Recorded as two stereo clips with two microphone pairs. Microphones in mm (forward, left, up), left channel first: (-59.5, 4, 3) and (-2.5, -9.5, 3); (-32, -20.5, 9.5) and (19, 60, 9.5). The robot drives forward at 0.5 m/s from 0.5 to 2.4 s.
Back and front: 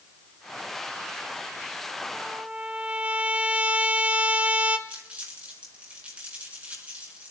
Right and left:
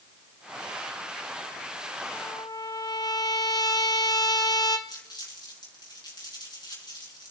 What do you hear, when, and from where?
2.1 s a trumpet: 75° right, 0.9 m; by 4.8 s 80° right, 0.9 m
4.9 s crumpling: 80° right, 5.5 m